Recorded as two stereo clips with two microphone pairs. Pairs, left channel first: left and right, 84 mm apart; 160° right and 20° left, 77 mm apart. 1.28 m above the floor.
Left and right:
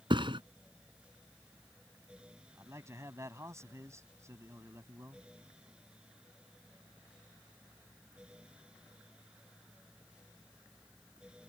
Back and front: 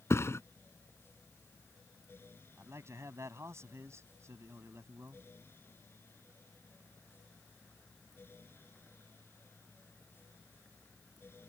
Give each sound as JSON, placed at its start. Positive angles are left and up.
{"t": 0.1, "sound": "a thud", "azimuth_deg": -105}
{"t": 2.6, "sound": "a man speaking", "azimuth_deg": -35}